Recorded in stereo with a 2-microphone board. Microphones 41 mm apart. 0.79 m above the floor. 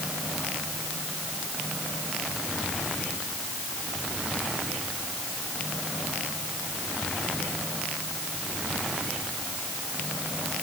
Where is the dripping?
No dripping in this recording.